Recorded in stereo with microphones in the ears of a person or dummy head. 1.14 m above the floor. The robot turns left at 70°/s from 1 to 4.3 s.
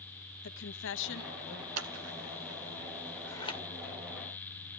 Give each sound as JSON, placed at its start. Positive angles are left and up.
{"t": 0.4, "sound": "a woman speaking", "azimuth_deg": 70, "distance_m": 1.5}
{"t": 1.8, "sound": "scissors", "side_deg": -75, "distance_m": 1.7}